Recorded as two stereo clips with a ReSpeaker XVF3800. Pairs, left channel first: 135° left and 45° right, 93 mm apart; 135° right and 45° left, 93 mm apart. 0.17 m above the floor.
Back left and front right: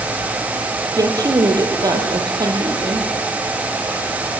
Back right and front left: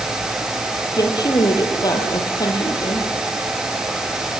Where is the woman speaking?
95° right, 5.5 m; by 3.1 s 85° right, 8 m.